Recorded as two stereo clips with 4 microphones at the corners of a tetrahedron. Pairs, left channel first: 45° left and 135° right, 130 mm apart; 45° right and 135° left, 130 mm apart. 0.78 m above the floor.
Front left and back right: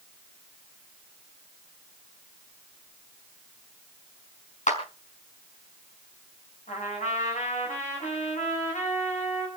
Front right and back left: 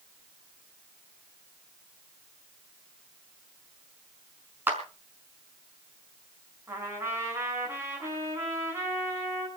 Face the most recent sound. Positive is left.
turn(degrees=65)